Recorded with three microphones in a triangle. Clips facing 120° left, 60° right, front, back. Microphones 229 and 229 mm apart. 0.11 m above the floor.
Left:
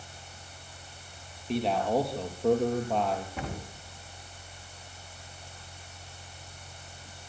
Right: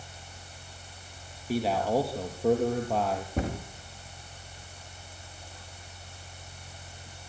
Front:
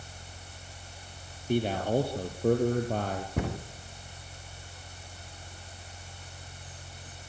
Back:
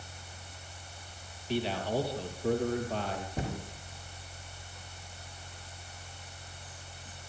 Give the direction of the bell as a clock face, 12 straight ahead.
I don't hear a bell.